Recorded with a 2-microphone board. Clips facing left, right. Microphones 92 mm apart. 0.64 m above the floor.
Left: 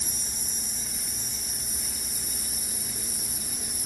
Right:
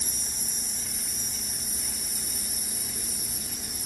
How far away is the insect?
About 0.8 m.